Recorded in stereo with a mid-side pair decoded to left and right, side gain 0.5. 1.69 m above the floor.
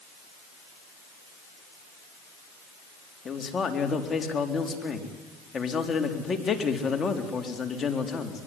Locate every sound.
3.2 s a man speaking: 35° left, 4 m